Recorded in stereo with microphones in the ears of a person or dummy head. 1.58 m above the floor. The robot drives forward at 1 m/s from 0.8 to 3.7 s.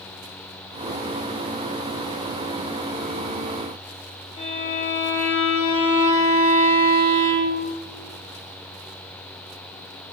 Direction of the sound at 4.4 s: 25° left (ahead or behind).